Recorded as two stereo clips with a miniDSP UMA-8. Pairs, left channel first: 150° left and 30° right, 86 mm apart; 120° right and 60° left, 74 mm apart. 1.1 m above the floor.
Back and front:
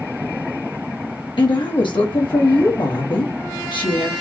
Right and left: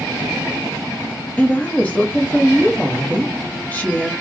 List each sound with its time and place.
1.4 s a woman speaking: 175° left, 1.3 m